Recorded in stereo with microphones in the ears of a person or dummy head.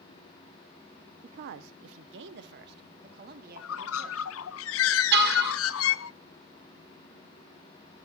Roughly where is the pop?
No pop in this recording.